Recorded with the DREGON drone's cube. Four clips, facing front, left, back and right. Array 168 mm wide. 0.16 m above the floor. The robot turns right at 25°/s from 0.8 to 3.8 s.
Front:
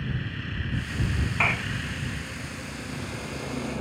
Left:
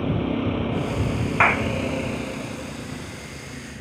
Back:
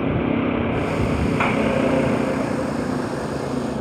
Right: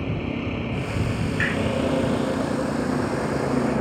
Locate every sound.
0.0 s a vehicle: 170° left; by 3.8 s 115° right
1.4 s a clap: 105° left; by 1.7 s 110° left